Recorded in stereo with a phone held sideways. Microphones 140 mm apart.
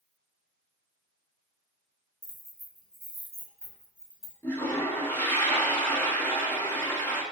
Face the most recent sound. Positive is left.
turn(degrees=15)  # may be behind; listen again after turning